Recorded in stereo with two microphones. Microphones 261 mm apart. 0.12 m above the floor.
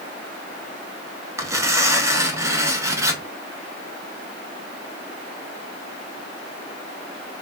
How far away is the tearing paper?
About 0.7 m.